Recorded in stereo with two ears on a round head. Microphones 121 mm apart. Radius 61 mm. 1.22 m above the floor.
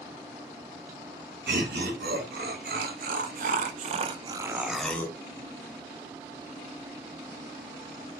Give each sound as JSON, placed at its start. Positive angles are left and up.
{"t": 1.5, "sound": "laughter", "side_deg": -90, "distance_m": 1.9}